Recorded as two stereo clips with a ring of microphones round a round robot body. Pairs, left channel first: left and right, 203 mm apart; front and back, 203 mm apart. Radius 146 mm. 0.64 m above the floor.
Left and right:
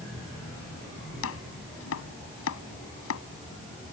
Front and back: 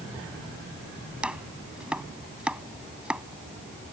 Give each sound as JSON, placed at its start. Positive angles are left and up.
{"t": 1.2, "sound": "chopping", "azimuth_deg": 95}